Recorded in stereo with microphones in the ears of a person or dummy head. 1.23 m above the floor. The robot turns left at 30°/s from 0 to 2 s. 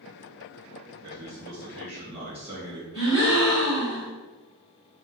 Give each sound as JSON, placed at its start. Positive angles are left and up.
{"t": 1.0, "sound": "a man speaking", "side_deg": -25, "distance_m": 1.5}
{"t": 2.9, "sound": "a gasp", "side_deg": 35, "distance_m": 2.0}